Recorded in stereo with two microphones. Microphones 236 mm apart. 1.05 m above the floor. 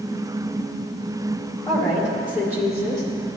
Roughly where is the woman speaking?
Left.